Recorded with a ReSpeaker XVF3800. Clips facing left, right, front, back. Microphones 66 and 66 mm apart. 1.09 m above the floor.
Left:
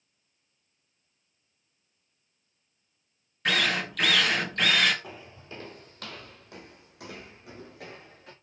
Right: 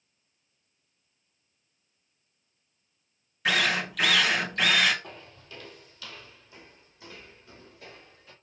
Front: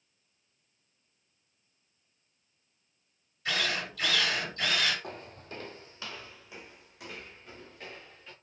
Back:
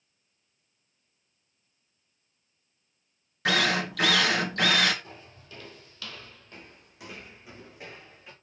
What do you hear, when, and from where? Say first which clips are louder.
3.5 s a drill: right 1 dB, back 7 dB; 175° right, 1.7 m
5.0 s footsteps: left 2 dB, front 5 dB; 10° left, 1.8 m; by 8.3 s 105° left, 4.5 m